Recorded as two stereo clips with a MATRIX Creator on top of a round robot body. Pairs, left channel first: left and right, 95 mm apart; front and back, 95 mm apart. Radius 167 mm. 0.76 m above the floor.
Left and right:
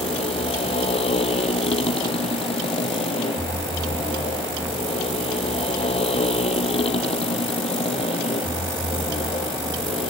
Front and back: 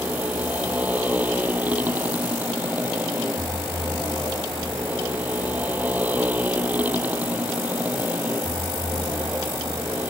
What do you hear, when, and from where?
0.0 s a motorcycle: 105° left